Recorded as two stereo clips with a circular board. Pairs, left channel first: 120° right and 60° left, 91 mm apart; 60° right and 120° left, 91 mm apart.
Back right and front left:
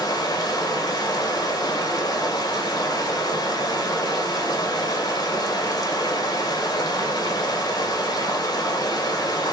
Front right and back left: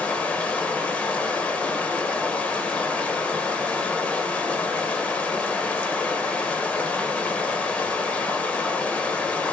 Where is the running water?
130° right, 1.4 m.